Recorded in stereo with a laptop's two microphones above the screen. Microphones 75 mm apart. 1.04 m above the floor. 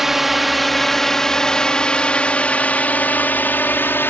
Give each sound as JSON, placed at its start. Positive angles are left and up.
{"t": 0.0, "sound": "a drone", "side_deg": -5}